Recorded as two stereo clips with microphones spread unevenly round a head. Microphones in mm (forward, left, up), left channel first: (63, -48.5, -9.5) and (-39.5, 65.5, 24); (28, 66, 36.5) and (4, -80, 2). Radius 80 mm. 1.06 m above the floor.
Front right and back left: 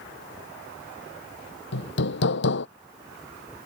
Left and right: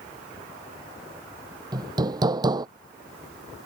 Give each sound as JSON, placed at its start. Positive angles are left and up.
{"t": 1.7, "sound": "hammering", "azimuth_deg": -30}